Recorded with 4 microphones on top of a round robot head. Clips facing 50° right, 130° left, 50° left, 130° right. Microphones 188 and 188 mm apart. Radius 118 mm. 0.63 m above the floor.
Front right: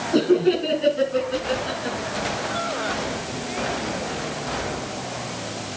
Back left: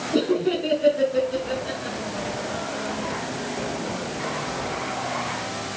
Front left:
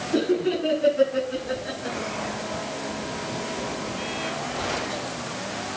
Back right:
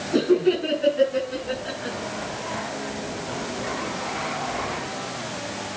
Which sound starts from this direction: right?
Laughter, at 0.1 s.